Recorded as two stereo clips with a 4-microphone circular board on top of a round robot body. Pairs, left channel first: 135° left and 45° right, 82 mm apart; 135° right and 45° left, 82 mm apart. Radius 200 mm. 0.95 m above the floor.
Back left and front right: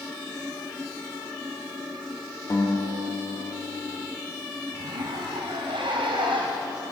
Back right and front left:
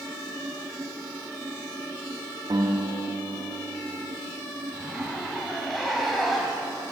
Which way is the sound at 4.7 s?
45° right.